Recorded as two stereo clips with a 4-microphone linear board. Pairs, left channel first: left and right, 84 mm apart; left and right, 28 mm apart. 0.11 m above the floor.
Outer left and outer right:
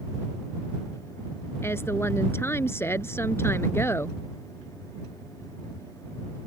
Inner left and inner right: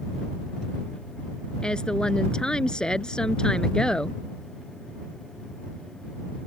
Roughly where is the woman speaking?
Left.